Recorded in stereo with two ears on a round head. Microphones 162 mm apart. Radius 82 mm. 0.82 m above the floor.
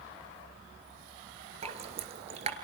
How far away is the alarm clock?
No alarm clock in this recording.